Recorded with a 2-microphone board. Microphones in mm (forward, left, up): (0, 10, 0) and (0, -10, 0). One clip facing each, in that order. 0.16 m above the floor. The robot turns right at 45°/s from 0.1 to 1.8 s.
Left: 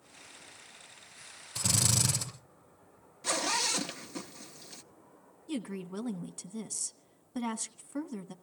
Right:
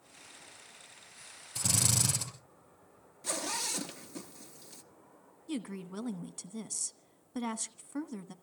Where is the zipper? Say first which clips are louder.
Left 5 dB; 30° left (ahead or behind), 0.9 m.